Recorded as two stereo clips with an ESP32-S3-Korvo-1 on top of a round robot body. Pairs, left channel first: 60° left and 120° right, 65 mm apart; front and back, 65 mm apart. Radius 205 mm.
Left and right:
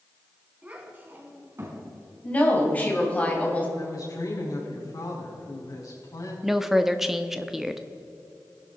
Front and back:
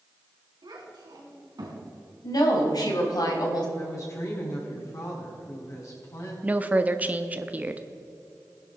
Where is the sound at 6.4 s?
160° left, 1.0 m.